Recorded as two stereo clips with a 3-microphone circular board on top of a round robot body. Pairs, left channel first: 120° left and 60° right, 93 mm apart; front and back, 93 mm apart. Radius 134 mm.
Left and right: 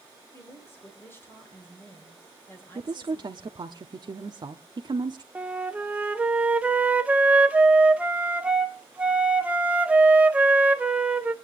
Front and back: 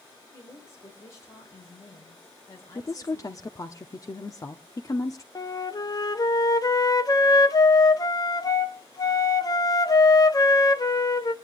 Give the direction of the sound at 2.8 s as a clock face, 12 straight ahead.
1 o'clock.